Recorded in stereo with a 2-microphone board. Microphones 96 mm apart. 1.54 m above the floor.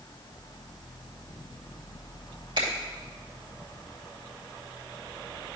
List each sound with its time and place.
2.6 s a finger snap: 55° right (ahead or behind), 2.5 m